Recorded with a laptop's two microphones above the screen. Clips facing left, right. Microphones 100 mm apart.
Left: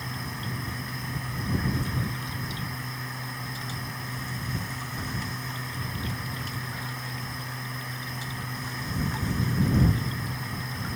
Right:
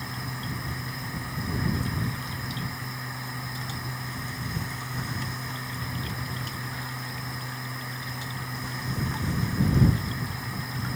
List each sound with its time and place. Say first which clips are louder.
0.0 s a machine running: even; 5° right (ahead or behind)